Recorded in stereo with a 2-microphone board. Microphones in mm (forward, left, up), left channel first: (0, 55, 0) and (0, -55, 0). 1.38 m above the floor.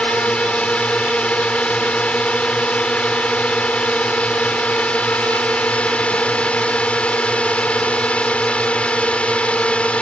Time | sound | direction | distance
0.0 | a drone | 10° left (ahead or behind) | ?